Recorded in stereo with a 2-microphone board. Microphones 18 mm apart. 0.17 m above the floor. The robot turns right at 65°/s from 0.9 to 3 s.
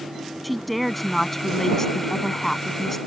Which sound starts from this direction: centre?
A woman speaking, at 0.4 s.